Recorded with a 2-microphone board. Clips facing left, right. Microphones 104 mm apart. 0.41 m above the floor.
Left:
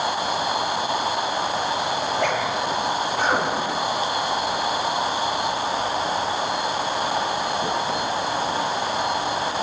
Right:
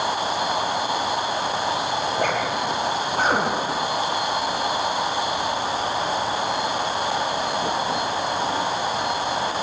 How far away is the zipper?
About 5.5 m.